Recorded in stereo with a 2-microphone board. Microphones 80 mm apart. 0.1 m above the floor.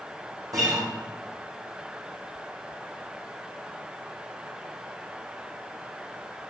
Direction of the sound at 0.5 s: 50° right (ahead or behind).